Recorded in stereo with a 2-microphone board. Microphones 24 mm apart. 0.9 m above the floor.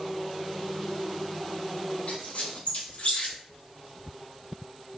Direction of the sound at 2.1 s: 70° left (ahead or behind).